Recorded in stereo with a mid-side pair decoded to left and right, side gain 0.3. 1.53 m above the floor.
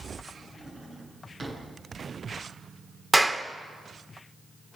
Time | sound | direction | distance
0.2 | a drawer | 55° right | 9.5 m
3.1 | a clap | 25° right | 3 m